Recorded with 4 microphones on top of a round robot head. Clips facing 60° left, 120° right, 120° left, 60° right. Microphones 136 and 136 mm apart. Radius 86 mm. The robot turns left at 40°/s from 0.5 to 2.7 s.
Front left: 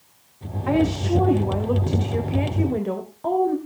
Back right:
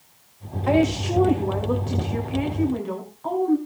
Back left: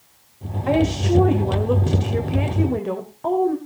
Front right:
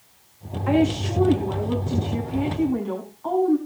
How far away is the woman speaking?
About 2.5 m.